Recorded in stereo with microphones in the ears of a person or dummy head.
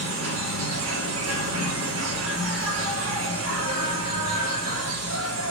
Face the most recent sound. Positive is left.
turn(degrees=-80)